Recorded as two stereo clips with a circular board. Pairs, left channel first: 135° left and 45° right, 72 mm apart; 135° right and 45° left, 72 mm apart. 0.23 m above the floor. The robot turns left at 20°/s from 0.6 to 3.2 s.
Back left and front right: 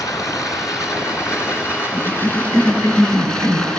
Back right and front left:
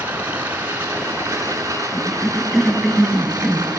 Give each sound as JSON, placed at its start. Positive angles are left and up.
{"t": 0.0, "sound": "running water", "azimuth_deg": 110, "distance_m": 2.5}
{"t": 1.9, "sound": "a cough", "azimuth_deg": 150, "distance_m": 1.5}